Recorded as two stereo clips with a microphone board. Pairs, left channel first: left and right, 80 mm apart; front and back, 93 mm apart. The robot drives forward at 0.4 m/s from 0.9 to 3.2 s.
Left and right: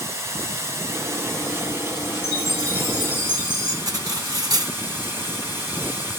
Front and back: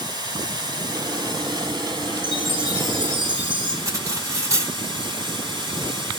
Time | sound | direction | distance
0.0 | running water | 145° right | 3.5 m
2.2 | a chime | 150° left | 4.5 m
3.9 | cutlery clinking | 125° right | 2.5 m